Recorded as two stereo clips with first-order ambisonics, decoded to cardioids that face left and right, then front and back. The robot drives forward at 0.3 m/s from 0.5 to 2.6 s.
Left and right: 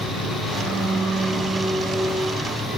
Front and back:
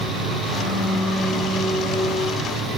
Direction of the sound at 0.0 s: 160° left.